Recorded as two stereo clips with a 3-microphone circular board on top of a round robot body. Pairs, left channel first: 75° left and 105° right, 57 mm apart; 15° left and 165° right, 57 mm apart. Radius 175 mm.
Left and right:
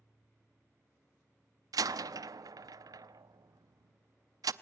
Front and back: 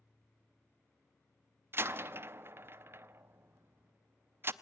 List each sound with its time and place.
1.7 s a door slam: 115° right, 0.7 m